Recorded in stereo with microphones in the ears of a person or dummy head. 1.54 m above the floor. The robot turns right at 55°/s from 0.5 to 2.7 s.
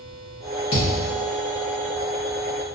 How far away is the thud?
About 0.9 m.